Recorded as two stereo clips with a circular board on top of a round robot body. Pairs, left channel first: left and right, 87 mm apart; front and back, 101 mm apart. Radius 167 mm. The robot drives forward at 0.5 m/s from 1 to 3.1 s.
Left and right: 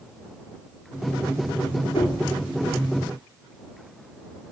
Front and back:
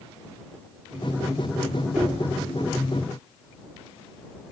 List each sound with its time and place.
1.9 s knocking: 95° left, 2 m; by 2.2 s 100° left, 2 m